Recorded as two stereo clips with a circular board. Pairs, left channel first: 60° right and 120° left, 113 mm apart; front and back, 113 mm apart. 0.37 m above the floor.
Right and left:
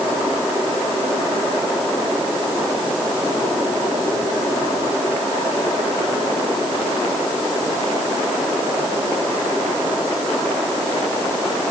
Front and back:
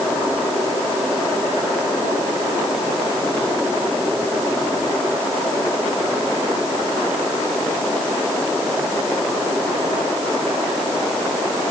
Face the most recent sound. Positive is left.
No sound to turn to.